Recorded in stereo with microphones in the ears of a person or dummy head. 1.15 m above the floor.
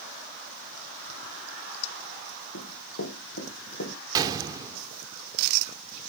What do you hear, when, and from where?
2.5 s running footsteps: 65° left (ahead or behind), 3.5 m; by 4.0 s 70° left (ahead or behind), 3 m
4.2 s a gunshot: 15° right (ahead or behind), 1.6 m